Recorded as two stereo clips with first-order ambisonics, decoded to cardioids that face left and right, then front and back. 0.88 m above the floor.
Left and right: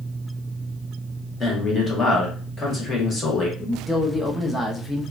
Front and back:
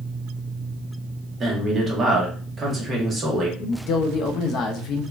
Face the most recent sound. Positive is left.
turn(degrees=10)